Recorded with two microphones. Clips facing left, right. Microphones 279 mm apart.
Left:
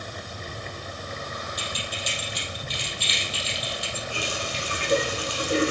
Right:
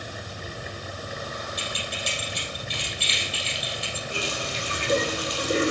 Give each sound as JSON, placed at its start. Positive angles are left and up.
{"t": 1.6, "sound": "keys jangling", "side_deg": -65, "distance_m": 2.5}
{"t": 4.1, "sound": "a running tap", "side_deg": -45, "distance_m": 2.5}